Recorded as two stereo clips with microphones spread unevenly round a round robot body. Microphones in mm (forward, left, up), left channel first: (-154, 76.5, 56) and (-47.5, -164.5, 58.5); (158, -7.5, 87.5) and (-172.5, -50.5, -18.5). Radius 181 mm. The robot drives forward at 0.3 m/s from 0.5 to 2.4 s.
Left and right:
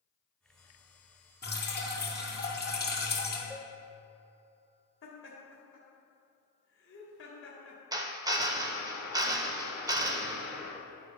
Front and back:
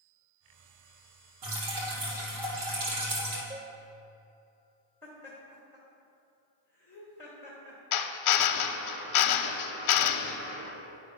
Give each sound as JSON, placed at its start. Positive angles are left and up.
{"t": 1.4, "sound": "dripping", "azimuth_deg": 165, "distance_m": 2.5}
{"t": 3.5, "sound": "a cowbell", "azimuth_deg": -145, "distance_m": 0.7}
{"t": 5.0, "sound": "laughter", "azimuth_deg": 105, "distance_m": 1.3}
{"t": 7.9, "sound": "a drill", "azimuth_deg": 0, "distance_m": 0.6}